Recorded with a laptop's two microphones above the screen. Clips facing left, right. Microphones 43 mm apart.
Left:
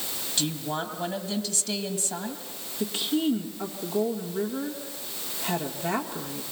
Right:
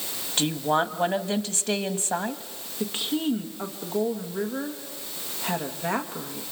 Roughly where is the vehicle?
No vehicle in this recording.